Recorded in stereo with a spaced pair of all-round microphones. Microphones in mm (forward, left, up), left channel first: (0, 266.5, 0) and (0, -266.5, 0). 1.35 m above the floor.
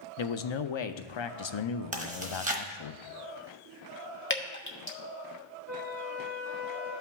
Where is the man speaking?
55° left (ahead or behind), 0.5 m.